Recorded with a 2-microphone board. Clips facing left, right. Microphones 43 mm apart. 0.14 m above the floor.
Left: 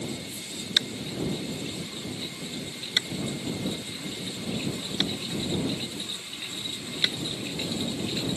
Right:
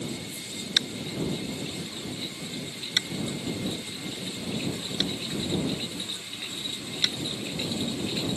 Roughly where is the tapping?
Centre.